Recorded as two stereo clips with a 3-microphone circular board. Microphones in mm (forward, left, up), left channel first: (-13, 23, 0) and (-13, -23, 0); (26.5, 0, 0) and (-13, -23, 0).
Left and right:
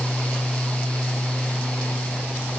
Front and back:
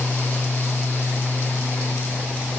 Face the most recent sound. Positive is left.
No sound to turn to.